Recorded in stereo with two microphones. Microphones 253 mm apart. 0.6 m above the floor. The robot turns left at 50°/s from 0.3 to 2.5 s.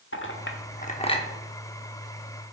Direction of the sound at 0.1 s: 50° left (ahead or behind).